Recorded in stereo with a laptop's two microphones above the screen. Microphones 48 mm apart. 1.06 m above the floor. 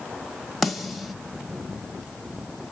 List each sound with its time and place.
0.6 s a snare drum: centre (ahead or behind), 1.0 m